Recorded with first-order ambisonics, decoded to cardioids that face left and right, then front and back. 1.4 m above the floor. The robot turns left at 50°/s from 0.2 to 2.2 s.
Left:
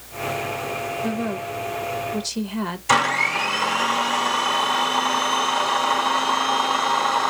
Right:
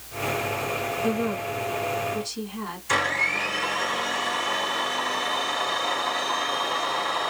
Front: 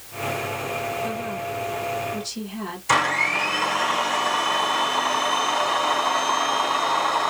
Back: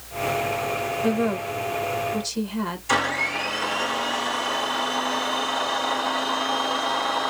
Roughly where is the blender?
Left.